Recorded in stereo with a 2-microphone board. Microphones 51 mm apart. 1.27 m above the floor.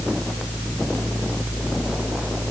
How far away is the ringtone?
I don't hear a ringtone.